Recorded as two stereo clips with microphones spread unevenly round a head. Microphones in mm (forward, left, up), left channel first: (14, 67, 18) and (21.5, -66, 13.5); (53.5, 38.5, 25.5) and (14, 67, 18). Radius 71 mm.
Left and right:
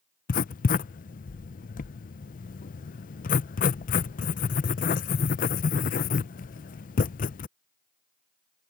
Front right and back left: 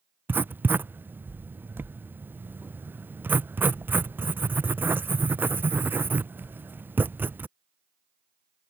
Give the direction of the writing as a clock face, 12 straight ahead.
8 o'clock.